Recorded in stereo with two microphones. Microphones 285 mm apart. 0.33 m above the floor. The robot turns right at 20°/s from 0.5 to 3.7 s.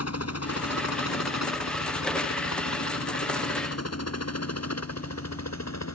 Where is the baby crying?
I don't hear a baby crying.